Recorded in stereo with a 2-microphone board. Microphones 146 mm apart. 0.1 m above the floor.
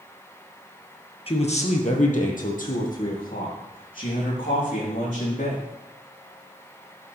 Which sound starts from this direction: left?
A man speaking, at 1.3 s.